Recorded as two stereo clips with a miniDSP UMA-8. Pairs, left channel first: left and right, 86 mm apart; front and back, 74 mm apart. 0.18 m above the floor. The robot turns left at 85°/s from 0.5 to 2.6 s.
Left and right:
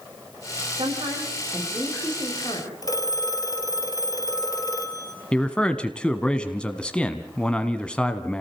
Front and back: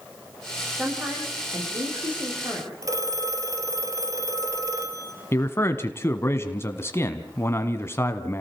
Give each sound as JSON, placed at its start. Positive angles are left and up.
{"t": 0.8, "sound": "a woman speaking", "azimuth_deg": -75, "distance_m": 10.0}
{"t": 2.8, "sound": "a phone ringing", "azimuth_deg": 135, "distance_m": 2.5}
{"t": 5.3, "sound": "a man speaking", "azimuth_deg": 15, "distance_m": 1.2}